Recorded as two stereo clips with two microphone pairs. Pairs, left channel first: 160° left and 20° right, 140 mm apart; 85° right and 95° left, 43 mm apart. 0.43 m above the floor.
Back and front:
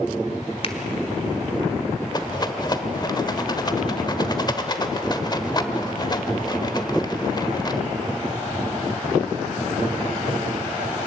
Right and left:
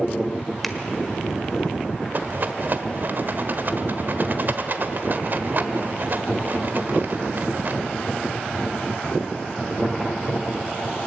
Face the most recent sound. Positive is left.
turn(degrees=110)